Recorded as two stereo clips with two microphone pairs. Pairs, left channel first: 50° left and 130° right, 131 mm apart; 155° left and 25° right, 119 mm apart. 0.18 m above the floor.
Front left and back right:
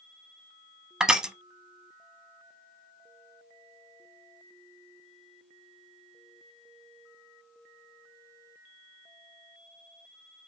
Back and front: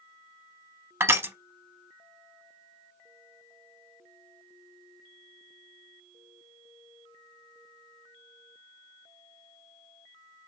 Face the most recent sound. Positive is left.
turn(degrees=-60)